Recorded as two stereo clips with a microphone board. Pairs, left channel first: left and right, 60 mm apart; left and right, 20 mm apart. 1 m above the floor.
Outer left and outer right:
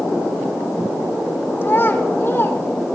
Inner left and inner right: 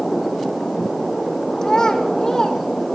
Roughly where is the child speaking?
Left.